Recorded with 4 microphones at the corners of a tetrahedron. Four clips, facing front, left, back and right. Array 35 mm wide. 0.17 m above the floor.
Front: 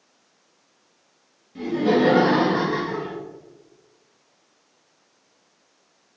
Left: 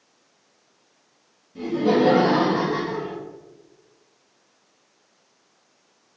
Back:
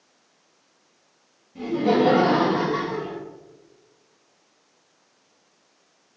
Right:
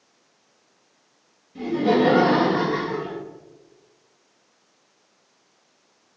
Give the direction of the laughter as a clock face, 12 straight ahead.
1 o'clock.